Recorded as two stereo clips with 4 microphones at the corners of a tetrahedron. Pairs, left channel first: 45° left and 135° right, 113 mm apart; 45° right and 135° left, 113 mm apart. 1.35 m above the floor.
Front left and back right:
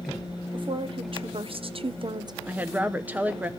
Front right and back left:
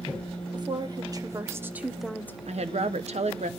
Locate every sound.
0.5 s a woman speaking: 175° right, 1.4 m; by 2.4 s 100° right, 0.5 m
2.5 s a woman speaking: 150° left, 0.8 m